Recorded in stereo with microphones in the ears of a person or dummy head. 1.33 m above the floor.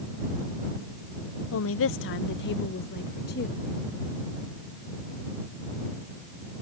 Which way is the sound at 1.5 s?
70° left (ahead or behind).